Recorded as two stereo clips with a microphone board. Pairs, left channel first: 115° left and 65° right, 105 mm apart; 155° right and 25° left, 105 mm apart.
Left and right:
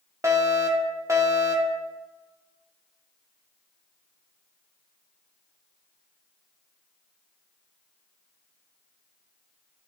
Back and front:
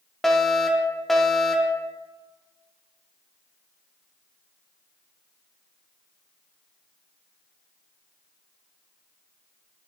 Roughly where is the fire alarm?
Right.